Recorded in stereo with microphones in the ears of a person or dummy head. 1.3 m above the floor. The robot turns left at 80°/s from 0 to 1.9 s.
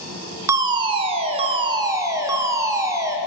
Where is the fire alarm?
10° right (ahead or behind), 0.9 m; by 3.2 s 15° right (ahead or behind), 0.9 m.